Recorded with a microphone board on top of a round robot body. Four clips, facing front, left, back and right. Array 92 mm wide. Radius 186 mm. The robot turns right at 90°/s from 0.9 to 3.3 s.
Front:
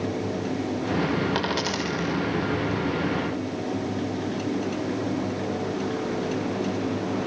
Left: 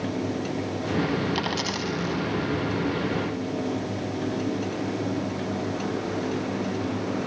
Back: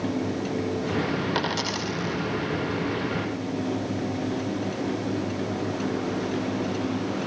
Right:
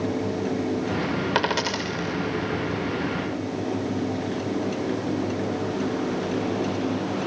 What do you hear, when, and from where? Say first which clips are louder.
1.4 s a dropped coin: right 4 dB, front 1 dB; 85° right, 6 m; by 2.2 s 10° right, 6 m